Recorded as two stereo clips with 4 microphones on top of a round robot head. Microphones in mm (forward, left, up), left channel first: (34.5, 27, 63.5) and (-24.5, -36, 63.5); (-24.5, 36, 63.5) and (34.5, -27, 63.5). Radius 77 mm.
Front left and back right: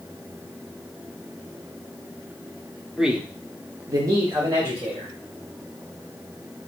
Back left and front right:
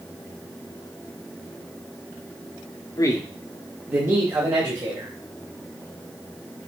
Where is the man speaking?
140° left, 1.0 m; by 5.1 s 85° right, 2 m.